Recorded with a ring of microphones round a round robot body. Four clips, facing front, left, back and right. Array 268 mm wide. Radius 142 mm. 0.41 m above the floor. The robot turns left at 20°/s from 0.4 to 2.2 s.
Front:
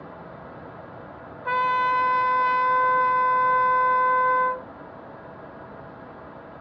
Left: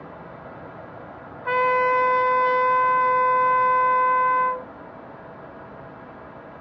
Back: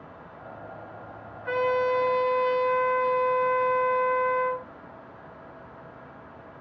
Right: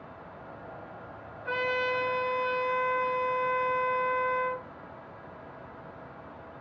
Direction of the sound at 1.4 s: 50° left.